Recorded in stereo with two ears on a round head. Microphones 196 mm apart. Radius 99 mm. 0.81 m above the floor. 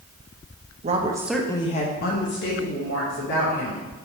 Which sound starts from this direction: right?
A woman speaking, at 0.8 s.